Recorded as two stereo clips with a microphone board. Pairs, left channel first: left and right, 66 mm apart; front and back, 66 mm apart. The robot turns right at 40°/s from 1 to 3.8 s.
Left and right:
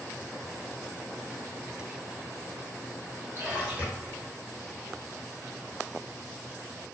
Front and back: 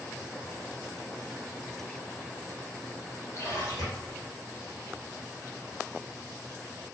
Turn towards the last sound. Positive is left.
turn(degrees=-25)